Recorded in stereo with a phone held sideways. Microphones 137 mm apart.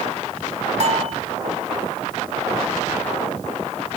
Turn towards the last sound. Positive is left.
turn(degrees=-60)  # may be behind; listen again after turning